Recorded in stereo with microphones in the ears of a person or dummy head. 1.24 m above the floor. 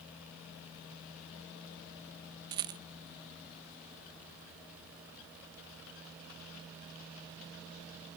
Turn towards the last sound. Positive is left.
turn(degrees=-20)  # may be behind; listen again after turning